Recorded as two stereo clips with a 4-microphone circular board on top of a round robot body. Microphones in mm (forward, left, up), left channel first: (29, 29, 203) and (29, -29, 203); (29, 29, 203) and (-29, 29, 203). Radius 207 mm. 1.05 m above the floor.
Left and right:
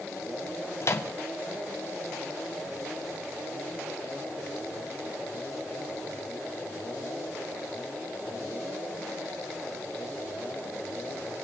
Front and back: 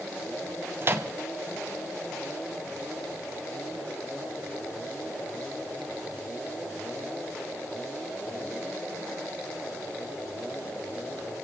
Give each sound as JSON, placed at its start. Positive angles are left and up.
{"t": 0.8, "sound": "a microwave", "azimuth_deg": 130, "distance_m": 1.3}